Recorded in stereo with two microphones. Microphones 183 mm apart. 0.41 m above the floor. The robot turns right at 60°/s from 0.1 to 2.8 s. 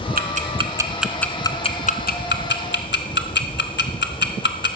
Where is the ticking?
55° right (ahead or behind), 0.9 m; by 4.8 s 75° left (ahead or behind), 0.9 m.